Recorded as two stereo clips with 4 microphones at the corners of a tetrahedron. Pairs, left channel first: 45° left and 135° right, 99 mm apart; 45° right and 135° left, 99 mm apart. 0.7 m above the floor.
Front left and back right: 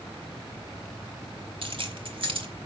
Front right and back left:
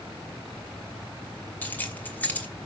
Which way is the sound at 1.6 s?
115° right.